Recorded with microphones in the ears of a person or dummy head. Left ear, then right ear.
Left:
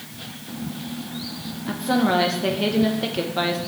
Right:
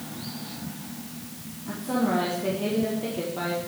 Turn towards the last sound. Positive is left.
turn(degrees=50)  # may be behind; listen again after turning